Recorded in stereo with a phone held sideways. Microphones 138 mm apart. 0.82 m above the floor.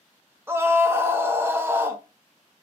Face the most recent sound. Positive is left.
turn(degrees=-15)  # may be behind; listen again after turning